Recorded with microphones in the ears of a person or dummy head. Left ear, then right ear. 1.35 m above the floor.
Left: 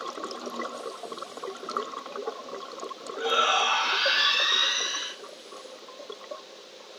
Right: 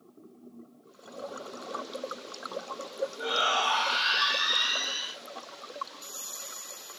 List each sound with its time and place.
3.2 s a shout: 60° left (ahead or behind), 1.2 m